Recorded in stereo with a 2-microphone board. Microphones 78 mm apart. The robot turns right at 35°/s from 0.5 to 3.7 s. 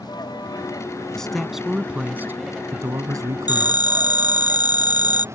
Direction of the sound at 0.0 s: 60° left (ahead or behind).